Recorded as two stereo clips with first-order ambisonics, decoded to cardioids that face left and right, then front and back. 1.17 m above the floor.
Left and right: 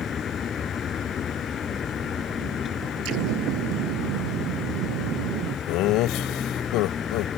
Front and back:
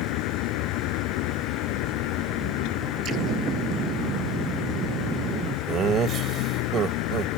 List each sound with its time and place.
0.0 s a vehicle: 25° left
3.0 s an explosion: 120° right
5.7 s laughter: 120° left